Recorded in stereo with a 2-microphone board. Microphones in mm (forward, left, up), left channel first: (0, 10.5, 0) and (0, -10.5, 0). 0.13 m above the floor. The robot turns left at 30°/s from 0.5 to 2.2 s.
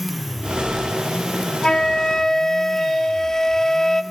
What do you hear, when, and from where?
1.6 s a flute: 50° left (ahead or behind), 0.7 m; by 4.0 s 35° left (ahead or behind), 0.7 m